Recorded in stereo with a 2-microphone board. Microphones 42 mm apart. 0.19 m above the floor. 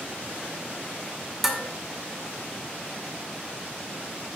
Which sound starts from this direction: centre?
Dishes clattering, at 1.4 s.